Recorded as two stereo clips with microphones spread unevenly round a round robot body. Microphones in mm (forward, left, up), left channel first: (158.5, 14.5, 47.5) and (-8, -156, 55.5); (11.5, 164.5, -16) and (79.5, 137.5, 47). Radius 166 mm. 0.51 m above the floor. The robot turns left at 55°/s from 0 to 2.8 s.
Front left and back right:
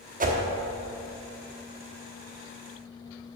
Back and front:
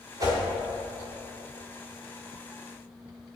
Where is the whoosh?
115° right, 1.2 m; by 0.4 s 125° right, 1.2 m.